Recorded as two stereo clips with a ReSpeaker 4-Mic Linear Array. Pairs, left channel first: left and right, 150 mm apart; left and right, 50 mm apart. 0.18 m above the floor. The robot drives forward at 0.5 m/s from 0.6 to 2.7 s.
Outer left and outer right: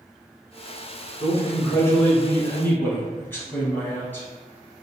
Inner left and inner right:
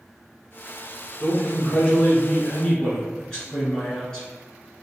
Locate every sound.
1.2 s a man speaking: 20° left (ahead or behind), 1.3 m; by 4.3 s 15° left (ahead or behind), 1.8 m